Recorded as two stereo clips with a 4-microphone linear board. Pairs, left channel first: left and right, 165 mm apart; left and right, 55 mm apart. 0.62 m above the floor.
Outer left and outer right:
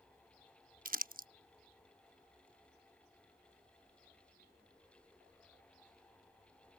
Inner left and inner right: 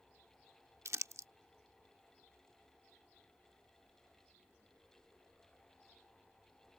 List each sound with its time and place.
0.8 s crumpling: 60° right (ahead or behind)